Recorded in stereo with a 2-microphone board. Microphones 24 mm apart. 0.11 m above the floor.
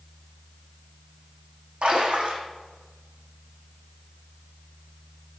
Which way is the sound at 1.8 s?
60° right (ahead or behind).